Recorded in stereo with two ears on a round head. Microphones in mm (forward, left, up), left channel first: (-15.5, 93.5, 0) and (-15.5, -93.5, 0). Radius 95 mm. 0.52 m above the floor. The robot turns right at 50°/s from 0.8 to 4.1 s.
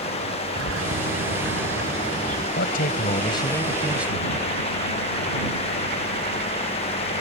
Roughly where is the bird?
Right.